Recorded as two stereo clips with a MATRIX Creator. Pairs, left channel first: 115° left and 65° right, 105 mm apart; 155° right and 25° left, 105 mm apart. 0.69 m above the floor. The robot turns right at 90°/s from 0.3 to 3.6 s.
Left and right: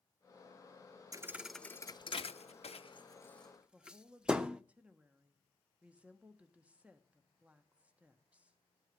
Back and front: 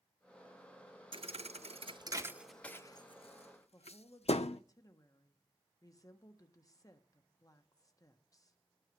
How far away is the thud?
About 0.5 m.